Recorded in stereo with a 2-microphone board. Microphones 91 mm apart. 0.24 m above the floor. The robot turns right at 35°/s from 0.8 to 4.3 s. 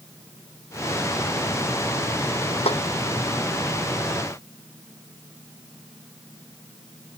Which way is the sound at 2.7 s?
75° left (ahead or behind).